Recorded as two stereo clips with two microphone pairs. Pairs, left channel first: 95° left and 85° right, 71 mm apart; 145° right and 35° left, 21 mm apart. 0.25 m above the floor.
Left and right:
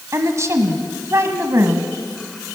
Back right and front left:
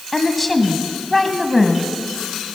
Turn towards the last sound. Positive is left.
turn(degrees=-70)